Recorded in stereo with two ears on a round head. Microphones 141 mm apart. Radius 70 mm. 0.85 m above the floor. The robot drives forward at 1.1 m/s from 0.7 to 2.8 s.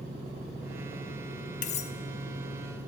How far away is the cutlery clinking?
About 1.0 m.